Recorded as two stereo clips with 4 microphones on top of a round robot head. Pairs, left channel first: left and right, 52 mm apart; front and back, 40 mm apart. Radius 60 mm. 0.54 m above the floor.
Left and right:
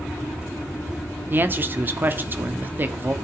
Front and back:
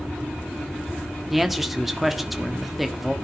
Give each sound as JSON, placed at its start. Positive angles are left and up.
{"t": 1.3, "sound": "a man speaking", "azimuth_deg": -95, "distance_m": 1.5}